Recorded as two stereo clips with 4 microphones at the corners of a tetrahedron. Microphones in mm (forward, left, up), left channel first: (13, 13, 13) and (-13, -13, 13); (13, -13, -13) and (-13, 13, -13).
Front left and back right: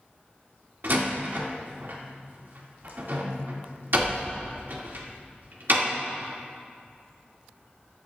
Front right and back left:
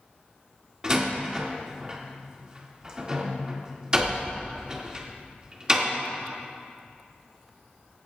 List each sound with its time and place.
0.8 s a door slam: 160° right, 1.7 m